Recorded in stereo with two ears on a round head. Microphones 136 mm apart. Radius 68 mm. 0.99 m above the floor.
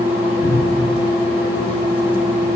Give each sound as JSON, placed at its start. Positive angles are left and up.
{"t": 0.4, "sound": "a cupboard door", "side_deg": 45, "distance_m": 4.0}